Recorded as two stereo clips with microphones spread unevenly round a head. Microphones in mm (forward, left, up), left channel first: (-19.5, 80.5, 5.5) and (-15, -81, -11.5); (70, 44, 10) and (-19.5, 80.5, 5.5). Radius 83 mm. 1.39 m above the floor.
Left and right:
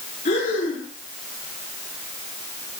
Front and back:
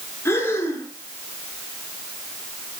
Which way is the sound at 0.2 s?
40° left.